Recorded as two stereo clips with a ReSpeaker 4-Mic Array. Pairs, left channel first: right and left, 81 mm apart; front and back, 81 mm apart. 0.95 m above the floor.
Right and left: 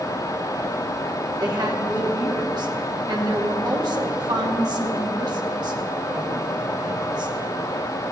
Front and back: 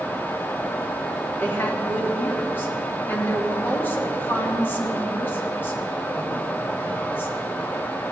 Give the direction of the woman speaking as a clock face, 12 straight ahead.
10 o'clock.